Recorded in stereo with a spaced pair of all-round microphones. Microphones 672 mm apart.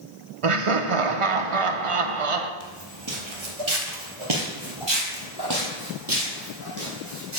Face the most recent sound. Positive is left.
turn(degrees=-25)  # may be behind; listen again after turning